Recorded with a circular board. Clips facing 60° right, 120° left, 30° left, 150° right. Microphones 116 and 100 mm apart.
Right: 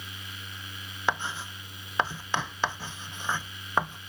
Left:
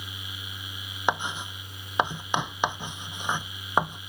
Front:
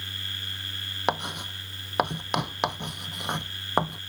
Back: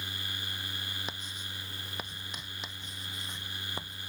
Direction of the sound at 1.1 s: 45° left.